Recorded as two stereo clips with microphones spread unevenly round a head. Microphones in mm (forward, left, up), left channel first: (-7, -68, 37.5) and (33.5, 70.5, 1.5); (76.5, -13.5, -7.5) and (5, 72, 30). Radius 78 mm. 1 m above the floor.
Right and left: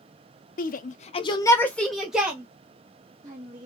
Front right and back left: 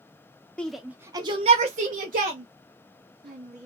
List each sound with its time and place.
0.6 s a shout: 110° right, 0.6 m; by 3.7 s 135° left, 1.7 m